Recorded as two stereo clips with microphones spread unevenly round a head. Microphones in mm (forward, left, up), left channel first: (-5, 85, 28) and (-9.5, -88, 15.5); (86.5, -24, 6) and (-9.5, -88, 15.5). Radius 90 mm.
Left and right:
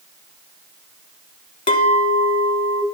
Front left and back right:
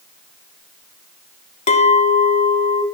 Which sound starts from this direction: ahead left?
A clink, at 1.7 s.